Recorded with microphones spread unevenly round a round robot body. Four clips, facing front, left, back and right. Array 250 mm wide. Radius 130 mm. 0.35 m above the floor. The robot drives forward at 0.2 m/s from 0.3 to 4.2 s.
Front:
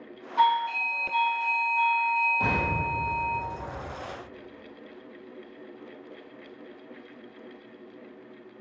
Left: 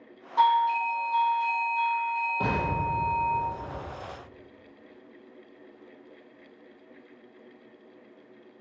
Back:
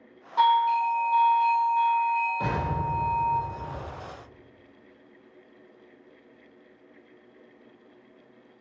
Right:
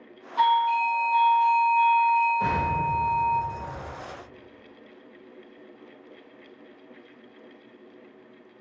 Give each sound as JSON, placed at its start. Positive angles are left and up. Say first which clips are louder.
{"t": 0.4, "sound": "a doorbell", "louder": "right 1 dB, back 3 dB", "azimuth_deg": 120, "distance_m": 1.5}
{"t": 2.4, "sound": "an explosion", "louder": "right 3 dB, front 1 dB", "azimuth_deg": 90, "distance_m": 1.7}